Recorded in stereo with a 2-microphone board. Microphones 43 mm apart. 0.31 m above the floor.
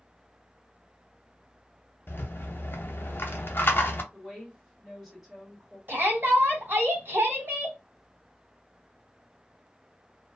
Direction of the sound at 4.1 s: 10° right (ahead or behind).